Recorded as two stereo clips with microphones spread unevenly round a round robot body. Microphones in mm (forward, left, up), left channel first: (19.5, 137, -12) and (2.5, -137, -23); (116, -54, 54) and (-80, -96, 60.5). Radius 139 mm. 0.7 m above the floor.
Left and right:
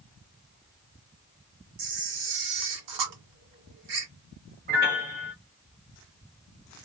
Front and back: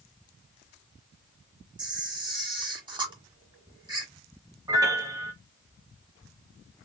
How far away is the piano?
About 0.9 m.